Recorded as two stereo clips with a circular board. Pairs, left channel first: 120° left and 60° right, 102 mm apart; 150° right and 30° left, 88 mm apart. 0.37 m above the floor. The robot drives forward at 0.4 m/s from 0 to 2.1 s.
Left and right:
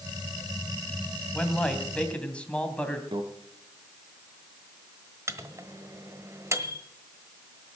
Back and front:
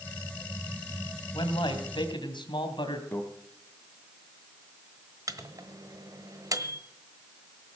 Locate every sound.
1.3 s a man speaking: 160° right, 2 m
3.1 s a microwave: 85° right, 2.0 m
5.3 s a microwave: 5° right, 1.2 m